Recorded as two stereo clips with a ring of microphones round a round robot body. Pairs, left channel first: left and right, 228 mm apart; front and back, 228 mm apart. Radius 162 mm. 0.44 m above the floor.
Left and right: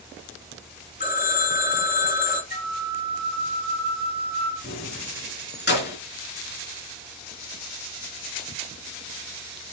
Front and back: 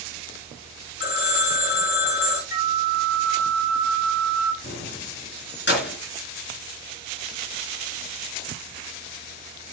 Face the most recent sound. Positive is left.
turn(degrees=45)